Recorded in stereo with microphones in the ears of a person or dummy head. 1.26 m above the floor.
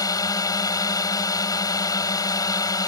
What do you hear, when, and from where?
0.0 s a drone: 15° left (ahead or behind)